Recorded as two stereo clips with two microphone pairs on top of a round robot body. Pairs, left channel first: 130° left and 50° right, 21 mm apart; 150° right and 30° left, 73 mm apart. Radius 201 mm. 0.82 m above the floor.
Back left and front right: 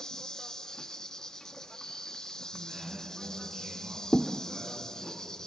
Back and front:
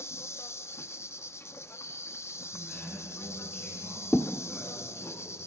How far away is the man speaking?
About 9.5 m.